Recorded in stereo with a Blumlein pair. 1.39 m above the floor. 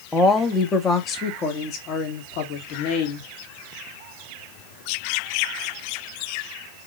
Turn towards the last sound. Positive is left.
turn(degrees=50)